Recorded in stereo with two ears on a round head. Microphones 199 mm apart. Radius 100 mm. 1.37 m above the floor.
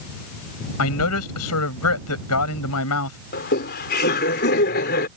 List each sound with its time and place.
0.8 s a man speaking: 85° left
3.3 s laughter: 45° left (ahead or behind)